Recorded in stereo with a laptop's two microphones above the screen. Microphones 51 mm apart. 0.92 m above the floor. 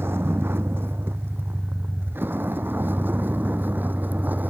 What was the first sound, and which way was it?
A vehicle, 50° right (ahead or behind).